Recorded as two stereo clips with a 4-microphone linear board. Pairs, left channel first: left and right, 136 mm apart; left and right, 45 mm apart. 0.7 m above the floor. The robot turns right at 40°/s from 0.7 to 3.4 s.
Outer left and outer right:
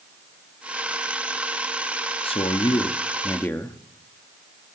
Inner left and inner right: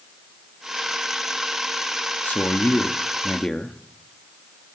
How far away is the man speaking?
About 0.8 m.